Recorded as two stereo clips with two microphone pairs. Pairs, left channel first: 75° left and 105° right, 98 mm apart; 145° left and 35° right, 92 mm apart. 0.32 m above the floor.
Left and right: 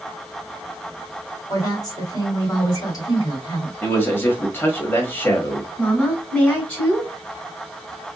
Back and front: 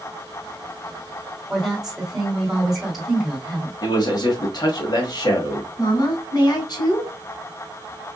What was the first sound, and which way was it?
A woman speaking, 50° left.